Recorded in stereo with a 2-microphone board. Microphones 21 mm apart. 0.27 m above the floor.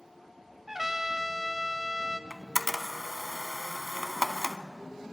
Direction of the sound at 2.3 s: 15° right (ahead or behind).